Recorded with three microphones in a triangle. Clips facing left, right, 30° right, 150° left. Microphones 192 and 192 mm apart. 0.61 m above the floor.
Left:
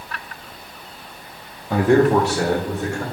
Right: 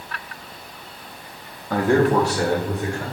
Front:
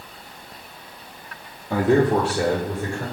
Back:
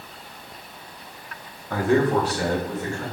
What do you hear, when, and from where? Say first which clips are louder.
1.7 s a man speaking: left 3 dB, front 2 dB; 30° left, 0.5 m; by 3.0 s 25° left, 1.7 m